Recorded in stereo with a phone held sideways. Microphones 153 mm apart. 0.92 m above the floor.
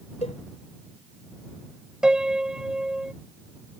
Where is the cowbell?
45° left (ahead or behind).